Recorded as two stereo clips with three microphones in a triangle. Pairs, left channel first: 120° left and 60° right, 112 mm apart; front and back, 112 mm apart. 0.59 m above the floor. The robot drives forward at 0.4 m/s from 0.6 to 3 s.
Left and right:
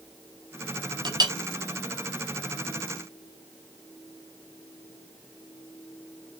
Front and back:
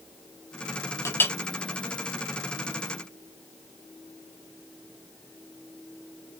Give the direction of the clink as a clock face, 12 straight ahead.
2 o'clock.